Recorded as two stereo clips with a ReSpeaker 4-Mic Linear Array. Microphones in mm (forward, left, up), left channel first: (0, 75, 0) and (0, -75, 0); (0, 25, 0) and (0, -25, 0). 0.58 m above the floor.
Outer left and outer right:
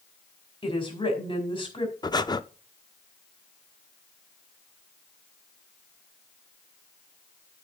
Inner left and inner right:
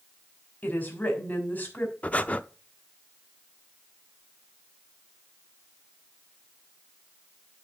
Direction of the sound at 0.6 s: 35° left (ahead or behind).